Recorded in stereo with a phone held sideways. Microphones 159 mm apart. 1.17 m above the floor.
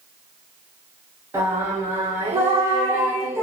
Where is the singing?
15° right (ahead or behind), 0.5 m.